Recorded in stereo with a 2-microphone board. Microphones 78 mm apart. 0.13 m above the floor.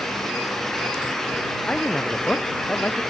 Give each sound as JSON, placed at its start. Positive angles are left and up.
{"t": 1.7, "sound": "a man speaking", "side_deg": 15}